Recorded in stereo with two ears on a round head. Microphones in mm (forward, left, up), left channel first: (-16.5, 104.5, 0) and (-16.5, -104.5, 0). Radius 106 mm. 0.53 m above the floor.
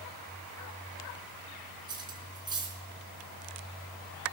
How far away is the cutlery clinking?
About 3.5 m.